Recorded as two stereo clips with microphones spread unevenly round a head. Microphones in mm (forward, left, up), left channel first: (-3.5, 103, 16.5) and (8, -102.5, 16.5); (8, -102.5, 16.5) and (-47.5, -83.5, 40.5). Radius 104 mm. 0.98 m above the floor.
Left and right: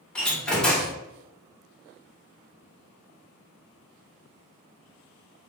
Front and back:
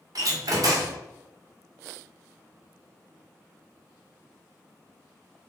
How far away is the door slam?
About 2 m.